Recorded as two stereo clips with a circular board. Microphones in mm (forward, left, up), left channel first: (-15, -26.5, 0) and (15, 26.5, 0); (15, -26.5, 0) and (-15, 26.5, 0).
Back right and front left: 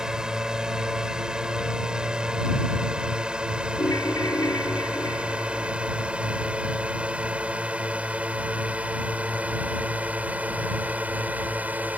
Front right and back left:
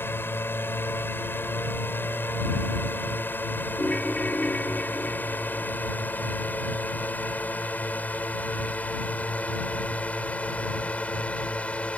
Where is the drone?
15° right; by 12.0 s 5° left.